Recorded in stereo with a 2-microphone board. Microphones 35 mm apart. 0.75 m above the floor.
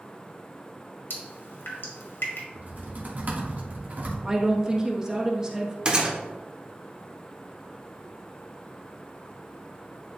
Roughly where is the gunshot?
Right.